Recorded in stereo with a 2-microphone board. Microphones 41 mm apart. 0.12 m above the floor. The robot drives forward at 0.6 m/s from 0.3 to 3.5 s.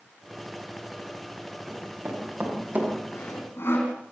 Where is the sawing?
75° left (ahead or behind), 7 m; by 3.9 s 80° left, 7 m.